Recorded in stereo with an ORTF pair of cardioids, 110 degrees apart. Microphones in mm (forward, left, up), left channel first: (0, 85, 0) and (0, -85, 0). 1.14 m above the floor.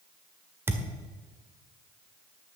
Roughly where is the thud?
Ahead.